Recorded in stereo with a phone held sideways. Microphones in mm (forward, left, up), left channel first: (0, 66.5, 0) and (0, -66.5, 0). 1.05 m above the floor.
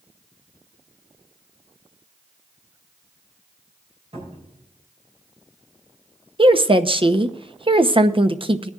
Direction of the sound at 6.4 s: 40° right (ahead or behind).